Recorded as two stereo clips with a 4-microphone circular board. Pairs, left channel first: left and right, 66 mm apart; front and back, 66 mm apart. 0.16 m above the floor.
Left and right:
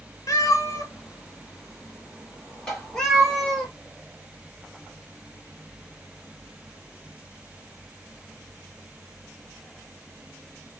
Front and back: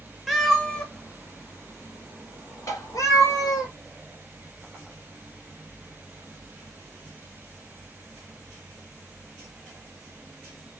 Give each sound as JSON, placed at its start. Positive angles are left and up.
{"t": 0.3, "sound": "a cat meowing", "azimuth_deg": 90, "distance_m": 0.8}
{"t": 2.7, "sound": "tapping", "azimuth_deg": 10, "distance_m": 2.5}